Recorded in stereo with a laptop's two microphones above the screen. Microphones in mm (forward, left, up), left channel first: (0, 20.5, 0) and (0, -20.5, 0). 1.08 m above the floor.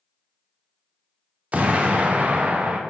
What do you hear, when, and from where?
1.5 s an explosion: 35° right (ahead or behind), 0.6 m